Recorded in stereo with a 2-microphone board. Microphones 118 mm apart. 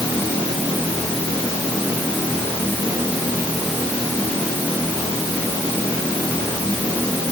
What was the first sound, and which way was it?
Only background noise.